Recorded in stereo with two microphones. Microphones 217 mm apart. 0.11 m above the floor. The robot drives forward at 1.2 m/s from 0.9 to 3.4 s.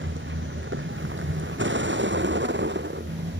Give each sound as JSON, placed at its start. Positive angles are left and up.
{"t": 0.0, "sound": "a vehicle", "side_deg": -60}